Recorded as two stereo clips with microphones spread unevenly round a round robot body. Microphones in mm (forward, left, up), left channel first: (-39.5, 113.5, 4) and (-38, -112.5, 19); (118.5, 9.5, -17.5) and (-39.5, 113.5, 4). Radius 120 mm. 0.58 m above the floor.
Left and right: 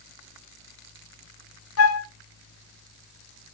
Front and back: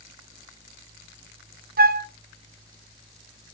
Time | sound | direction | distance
1.8 | a flute | 105° left | 0.7 m